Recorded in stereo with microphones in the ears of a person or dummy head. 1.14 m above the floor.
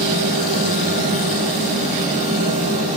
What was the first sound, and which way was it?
A fan, 50° right (ahead or behind).